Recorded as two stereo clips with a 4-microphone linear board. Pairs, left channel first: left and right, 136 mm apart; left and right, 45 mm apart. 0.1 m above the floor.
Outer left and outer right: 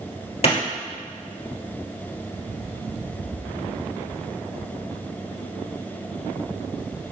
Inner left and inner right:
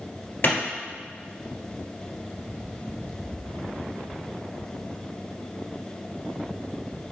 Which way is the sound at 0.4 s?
50° left (ahead or behind).